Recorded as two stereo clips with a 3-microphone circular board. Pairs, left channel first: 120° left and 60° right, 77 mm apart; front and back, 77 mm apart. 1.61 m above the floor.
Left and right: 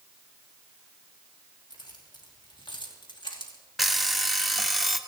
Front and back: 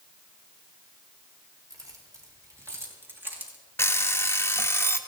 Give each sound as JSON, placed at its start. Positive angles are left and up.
{"t": 1.7, "sound": "keys jangling", "azimuth_deg": 140, "distance_m": 3.0}
{"t": 3.8, "sound": "an alarm clock", "azimuth_deg": 30, "distance_m": 1.0}